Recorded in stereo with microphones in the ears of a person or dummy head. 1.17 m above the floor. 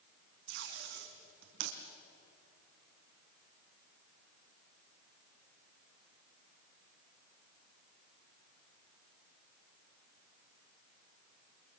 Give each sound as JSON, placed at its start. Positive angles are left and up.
{"t": 0.5, "sound": "tape being pulled", "side_deg": -65, "distance_m": 2.0}